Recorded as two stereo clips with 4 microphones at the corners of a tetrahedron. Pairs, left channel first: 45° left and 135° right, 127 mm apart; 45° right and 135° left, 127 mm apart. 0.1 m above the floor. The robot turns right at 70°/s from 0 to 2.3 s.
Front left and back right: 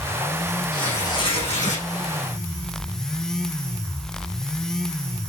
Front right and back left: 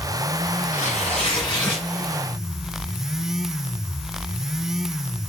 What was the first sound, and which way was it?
Tearing paper, 40° right.